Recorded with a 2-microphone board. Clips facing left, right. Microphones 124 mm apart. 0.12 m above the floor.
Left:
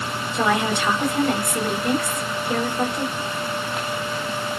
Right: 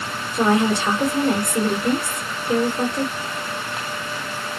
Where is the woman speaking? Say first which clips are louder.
Right 4 dB; 35° right (ahead or behind), 1.5 m.